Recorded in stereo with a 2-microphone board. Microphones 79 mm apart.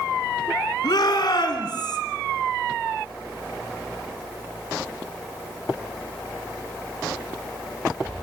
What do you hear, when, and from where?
0.8 s a shout: 60° left (ahead or behind), 2.5 m